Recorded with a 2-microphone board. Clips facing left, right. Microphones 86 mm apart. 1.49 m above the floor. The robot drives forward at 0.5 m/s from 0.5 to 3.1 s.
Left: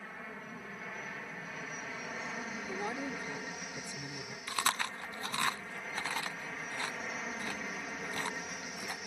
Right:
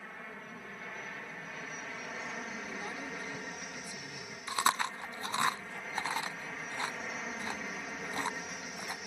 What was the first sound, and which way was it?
An aircraft, centre (ahead or behind).